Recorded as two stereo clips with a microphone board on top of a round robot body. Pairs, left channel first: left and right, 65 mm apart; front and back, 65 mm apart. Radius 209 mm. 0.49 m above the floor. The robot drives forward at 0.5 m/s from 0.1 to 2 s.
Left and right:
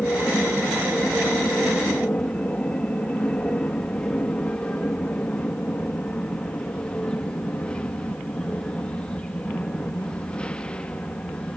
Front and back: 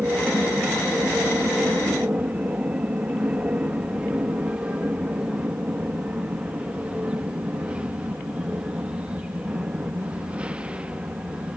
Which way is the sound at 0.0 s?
140° left.